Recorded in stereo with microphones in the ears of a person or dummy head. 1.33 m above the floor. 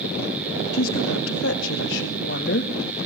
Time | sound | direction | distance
0.7 | a woman speaking | 80° left | 3 m